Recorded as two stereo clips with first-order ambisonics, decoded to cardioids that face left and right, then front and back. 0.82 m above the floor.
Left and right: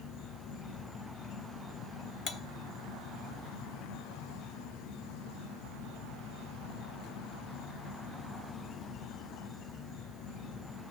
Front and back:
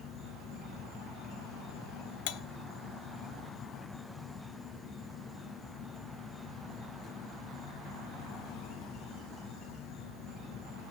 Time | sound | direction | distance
0.0 | an insect | 60° left | 1.7 m
2.3 | cutlery clinking | 25° left | 0.8 m